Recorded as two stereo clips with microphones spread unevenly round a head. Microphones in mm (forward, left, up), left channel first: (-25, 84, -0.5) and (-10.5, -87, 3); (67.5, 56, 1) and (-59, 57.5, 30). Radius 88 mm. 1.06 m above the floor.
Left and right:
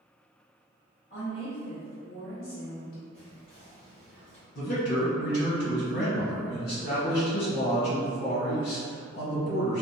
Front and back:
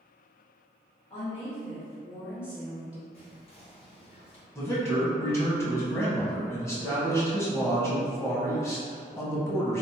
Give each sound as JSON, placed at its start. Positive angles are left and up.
{"t": 1.1, "sound": "a woman speaking", "azimuth_deg": 40, "distance_m": 1.4}
{"t": 3.1, "sound": "whispering", "azimuth_deg": 35, "distance_m": 1.6}
{"t": 4.5, "sound": "a man speaking", "azimuth_deg": 65, "distance_m": 1.3}